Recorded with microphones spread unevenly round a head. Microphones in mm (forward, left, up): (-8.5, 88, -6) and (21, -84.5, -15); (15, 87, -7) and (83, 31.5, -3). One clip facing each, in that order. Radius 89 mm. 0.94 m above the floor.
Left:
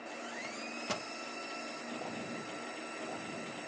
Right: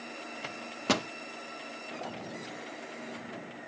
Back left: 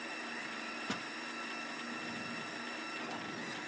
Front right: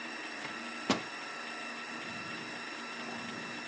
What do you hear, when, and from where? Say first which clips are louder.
0.4 s a microwave: right 11 dB, front right 10 dB; 85° right